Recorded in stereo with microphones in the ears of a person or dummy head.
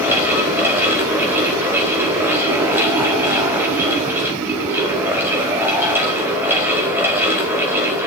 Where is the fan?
15° right (ahead or behind), 1.0 m.